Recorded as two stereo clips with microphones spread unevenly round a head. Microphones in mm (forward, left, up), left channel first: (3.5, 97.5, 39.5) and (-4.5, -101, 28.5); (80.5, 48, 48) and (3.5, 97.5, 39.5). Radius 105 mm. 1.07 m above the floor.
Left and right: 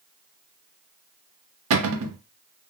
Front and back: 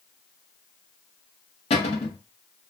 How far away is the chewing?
I don't hear chewing.